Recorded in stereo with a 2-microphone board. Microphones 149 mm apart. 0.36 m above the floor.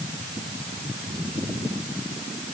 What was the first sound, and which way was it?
Only background noise.